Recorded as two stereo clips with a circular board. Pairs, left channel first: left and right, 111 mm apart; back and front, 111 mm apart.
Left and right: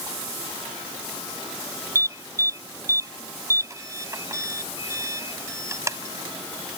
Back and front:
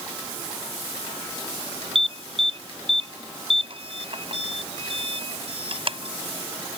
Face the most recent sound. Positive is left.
turn(degrees=-30)